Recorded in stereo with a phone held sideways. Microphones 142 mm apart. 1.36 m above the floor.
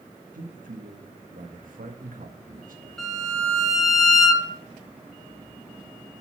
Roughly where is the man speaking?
Right.